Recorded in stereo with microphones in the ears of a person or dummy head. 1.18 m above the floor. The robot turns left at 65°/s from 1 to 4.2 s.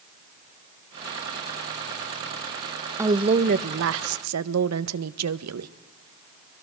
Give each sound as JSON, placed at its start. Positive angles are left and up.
{"t": 3.0, "sound": "a woman speaking", "azimuth_deg": -20, "distance_m": 0.8}